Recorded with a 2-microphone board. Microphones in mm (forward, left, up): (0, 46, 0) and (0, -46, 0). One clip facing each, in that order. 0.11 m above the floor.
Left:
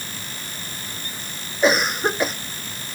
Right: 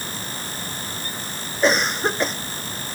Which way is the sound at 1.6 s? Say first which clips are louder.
Left 1 dB; 5° left (ahead or behind).